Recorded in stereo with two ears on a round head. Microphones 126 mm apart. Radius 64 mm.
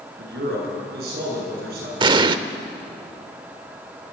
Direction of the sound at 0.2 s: 85° right.